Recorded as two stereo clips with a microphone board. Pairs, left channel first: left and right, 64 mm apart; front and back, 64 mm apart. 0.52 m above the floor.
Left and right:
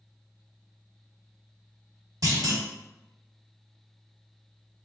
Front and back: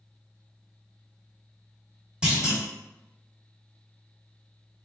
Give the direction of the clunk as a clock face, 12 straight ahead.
3 o'clock.